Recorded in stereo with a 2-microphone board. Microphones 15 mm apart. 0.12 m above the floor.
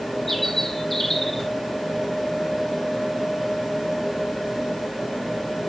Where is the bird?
20° left (ahead or behind), 1.7 m.